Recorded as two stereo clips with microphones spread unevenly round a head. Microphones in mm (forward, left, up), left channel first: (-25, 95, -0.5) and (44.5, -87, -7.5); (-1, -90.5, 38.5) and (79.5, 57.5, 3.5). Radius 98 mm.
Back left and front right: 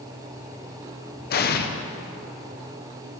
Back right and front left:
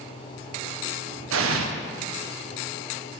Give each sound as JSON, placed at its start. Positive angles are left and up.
{"t": 1.3, "sound": "an explosion", "azimuth_deg": 75, "distance_m": 0.9}